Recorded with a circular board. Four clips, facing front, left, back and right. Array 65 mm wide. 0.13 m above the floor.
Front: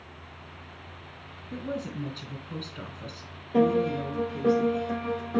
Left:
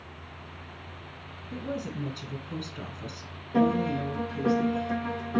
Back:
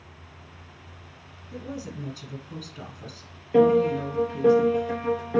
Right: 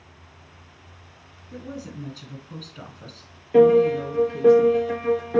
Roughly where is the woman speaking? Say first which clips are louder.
Left 2 dB, front 2 dB; ahead.